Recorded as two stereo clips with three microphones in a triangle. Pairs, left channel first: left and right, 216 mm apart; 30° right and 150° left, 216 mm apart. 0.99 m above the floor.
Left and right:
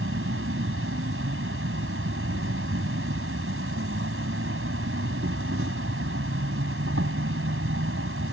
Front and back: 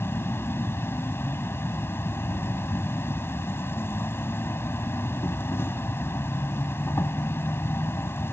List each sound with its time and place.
0.0 s an insect: 110° right